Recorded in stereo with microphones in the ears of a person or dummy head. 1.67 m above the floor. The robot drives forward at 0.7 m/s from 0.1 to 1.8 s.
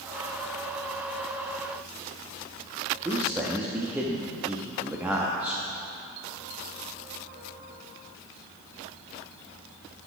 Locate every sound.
3.0 s a man speaking: 5° right (ahead or behind), 0.6 m